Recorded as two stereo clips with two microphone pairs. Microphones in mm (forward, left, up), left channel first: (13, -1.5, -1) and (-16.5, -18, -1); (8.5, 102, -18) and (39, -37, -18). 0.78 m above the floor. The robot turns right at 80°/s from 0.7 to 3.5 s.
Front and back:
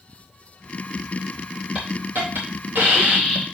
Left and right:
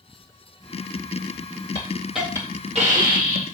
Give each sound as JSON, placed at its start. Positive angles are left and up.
{"t": 1.8, "sound": "a hiss", "azimuth_deg": 165, "distance_m": 3.5}